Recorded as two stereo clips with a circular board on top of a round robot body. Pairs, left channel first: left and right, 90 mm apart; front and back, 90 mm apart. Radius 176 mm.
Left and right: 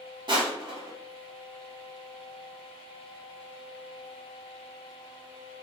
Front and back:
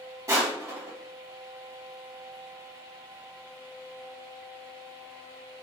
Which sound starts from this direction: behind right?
Crushing, at 0.3 s.